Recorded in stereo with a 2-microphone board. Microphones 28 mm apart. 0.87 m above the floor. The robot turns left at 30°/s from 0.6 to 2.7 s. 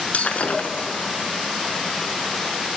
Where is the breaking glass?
60° left (ahead or behind), 1.3 m; by 0.9 s 55° left (ahead or behind), 1.3 m.